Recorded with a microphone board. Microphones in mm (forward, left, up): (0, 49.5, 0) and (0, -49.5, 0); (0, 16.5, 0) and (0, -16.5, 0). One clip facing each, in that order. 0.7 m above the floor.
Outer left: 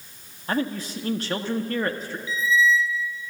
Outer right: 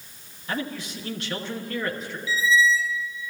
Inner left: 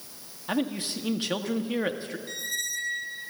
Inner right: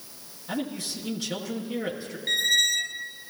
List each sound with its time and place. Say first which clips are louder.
0.5 s a man speaking: outer left 4 dB, inner left 3 dB; 40° left (ahead or behind), 1.3 m
2.3 s a squeak: even, inner right 13 dB; 90° right, 0.8 m